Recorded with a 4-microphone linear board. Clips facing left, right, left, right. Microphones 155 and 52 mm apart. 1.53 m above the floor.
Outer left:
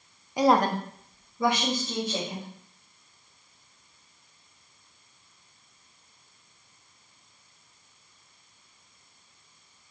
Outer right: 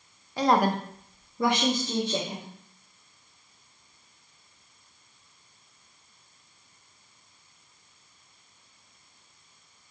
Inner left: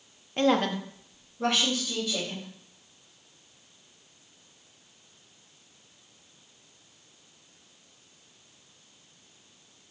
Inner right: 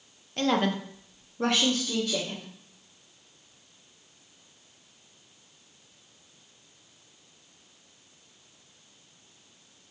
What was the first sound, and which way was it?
A woman speaking, 15° left (ahead or behind).